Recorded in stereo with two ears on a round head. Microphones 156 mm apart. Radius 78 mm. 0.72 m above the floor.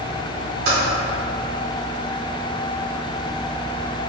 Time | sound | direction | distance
0.7 | typing on a keyboard | 55° right (ahead or behind) | 1.6 m